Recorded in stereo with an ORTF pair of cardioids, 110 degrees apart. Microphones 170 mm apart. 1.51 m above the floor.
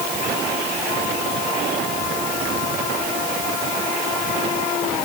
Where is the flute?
No flute in this recording.